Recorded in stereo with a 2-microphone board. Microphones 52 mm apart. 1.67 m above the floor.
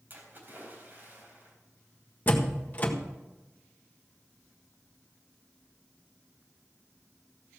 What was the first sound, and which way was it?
A splash, 35° right (ahead or behind).